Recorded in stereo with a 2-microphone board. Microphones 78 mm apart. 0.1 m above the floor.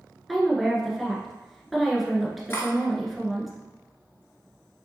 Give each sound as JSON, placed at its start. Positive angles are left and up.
{"t": 0.3, "sound": "a woman speaking", "side_deg": 0, "distance_m": 1.1}
{"t": 2.5, "sound": "cutlery clinking", "side_deg": 30, "distance_m": 0.9}